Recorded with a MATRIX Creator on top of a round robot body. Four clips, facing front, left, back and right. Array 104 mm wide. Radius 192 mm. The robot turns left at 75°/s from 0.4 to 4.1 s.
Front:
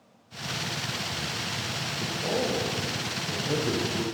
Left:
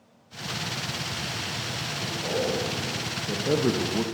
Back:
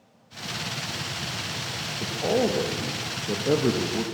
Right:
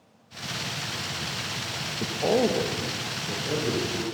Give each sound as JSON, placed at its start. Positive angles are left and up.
{"t": 2.0, "sound": "a man speaking", "azimuth_deg": -95, "distance_m": 0.9}